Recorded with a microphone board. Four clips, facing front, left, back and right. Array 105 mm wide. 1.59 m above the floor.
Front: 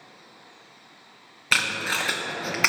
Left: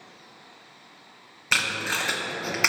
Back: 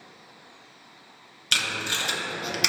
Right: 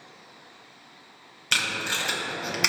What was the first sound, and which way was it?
Tape being pulled, 25° left.